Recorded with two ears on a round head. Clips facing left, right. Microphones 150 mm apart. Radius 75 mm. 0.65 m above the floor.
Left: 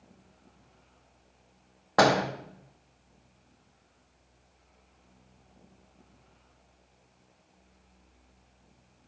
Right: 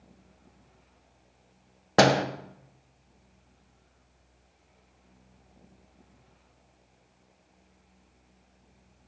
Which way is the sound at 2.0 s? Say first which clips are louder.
Right 2 dB; 30° right (ahead or behind).